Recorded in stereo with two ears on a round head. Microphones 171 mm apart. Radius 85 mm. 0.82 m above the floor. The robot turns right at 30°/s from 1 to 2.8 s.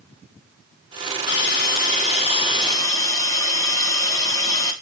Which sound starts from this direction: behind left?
A hiss, at 1.3 s.